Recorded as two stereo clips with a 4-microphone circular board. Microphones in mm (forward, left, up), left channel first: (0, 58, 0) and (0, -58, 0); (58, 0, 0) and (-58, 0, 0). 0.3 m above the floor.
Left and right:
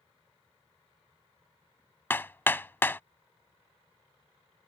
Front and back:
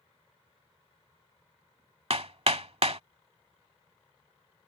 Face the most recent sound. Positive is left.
turn(degrees=160)